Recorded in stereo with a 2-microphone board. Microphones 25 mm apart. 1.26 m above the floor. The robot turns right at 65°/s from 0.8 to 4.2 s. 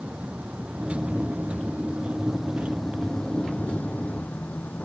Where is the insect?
120° right; by 4.8 s 100° left.